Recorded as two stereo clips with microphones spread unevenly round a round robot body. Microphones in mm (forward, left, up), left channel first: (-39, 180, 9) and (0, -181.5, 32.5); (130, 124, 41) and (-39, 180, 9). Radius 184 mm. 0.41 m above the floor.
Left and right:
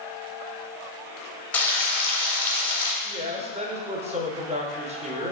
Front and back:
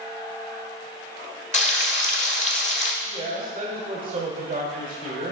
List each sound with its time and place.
1.5 s frying: 20° left, 1.2 m
3.0 s a woman speaking: 155° right, 1.1 m